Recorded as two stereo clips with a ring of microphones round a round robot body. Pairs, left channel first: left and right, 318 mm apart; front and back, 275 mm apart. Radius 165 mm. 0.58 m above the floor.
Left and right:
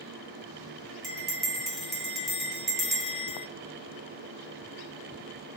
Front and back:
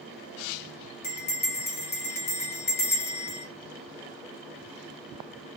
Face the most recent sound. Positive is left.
turn(degrees=0)